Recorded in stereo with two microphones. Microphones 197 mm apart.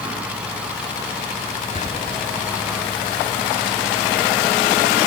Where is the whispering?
35° left (ahead or behind), 1.1 m.